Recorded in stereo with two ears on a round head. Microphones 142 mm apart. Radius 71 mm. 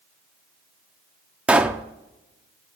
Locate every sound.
1.5 s a pop: 5° right (ahead or behind), 0.7 m